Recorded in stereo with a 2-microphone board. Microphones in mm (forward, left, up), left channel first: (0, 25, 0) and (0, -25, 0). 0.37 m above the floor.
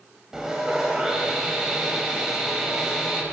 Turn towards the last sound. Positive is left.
turn(degrees=-10)  # may be behind; listen again after turning